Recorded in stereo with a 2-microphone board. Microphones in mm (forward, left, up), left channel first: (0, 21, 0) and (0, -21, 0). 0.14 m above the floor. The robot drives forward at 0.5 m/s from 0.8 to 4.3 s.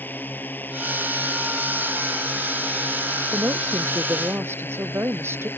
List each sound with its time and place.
0.0 s a drone: 50° left (ahead or behind); by 5.6 s 60° left (ahead or behind)
3.3 s a woman speaking: 70° right (ahead or behind); by 5.5 s 75° right (ahead or behind)